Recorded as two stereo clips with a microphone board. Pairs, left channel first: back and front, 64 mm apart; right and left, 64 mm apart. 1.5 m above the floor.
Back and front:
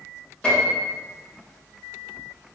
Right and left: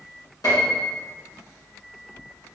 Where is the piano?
105° right, 1.9 m.